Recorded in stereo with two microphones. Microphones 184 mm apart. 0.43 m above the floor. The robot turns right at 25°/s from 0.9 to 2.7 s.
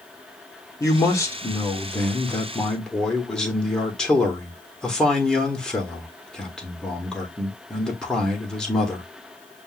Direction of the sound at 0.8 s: 20° left (ahead or behind).